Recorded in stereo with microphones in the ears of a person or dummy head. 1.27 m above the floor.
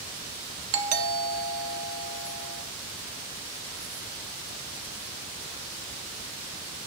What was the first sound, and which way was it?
A doorbell, 40° right (ahead or behind).